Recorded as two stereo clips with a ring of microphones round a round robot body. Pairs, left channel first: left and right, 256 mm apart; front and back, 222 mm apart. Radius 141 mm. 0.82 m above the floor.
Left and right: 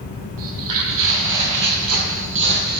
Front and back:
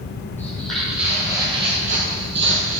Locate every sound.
0.4 s footsteps: 85° right, 1.8 m; by 2.8 s 140° right, 1.5 m